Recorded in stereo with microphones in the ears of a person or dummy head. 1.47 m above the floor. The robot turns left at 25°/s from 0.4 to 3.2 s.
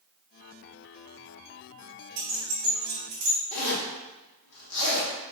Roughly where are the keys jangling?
Right.